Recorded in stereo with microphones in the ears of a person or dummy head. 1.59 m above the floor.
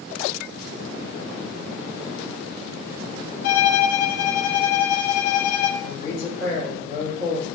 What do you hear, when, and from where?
3.4 s a violin: 50° left (ahead or behind), 0.5 m
5.8 s a man speaking: 40° left (ahead or behind), 1.7 m